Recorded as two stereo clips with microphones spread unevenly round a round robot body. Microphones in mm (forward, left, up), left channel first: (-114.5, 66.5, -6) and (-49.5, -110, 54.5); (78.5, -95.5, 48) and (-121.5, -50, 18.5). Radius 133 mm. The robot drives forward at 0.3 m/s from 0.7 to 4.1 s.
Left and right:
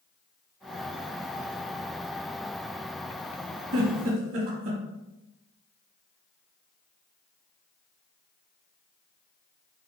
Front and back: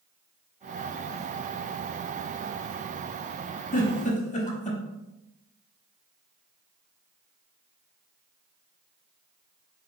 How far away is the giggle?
About 1.0 m.